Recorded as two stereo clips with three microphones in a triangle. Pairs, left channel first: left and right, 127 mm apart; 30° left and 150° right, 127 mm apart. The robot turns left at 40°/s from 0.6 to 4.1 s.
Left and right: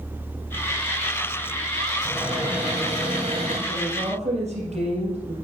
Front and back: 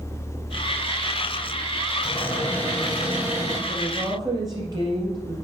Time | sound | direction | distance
2.0 | a cupboard door | 25° right | 5 m
3.7 | a woman speaking | 80° right | 3.5 m